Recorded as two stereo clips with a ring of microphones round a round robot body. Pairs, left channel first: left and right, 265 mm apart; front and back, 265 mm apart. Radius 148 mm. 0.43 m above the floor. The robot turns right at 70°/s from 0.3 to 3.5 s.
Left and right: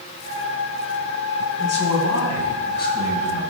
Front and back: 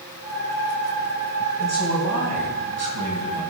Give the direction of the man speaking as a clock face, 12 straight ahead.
10 o'clock.